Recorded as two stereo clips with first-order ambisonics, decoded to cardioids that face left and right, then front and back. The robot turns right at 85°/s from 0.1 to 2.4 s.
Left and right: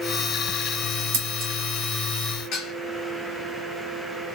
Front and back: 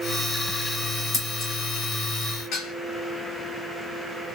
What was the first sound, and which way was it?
Scissors, 85° right.